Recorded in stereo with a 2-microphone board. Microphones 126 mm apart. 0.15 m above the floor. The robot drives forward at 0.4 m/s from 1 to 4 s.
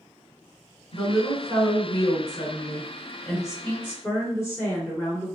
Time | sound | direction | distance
0.9 | a woman speaking | 30° left (ahead or behind) | 1.2 m